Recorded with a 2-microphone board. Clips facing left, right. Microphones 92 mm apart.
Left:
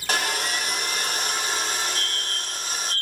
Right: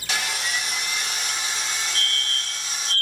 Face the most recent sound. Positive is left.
turn(degrees=15)  # may be behind; listen again after turning